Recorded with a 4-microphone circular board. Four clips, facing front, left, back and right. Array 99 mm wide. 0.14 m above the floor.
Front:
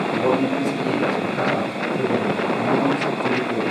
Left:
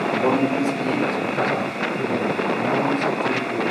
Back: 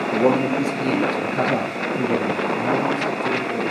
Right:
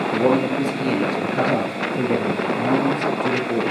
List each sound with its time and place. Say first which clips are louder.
0.1 s a man speaking: right 2 dB, back 3 dB; 150° right, 2.5 m; by 3.6 s 90° right, 3.5 m